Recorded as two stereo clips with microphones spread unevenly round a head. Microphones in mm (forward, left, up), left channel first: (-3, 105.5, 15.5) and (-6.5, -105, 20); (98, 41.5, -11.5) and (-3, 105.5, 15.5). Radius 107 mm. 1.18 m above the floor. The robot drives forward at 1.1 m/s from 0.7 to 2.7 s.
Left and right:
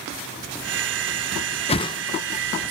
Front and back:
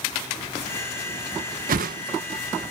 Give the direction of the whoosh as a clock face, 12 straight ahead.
7 o'clock.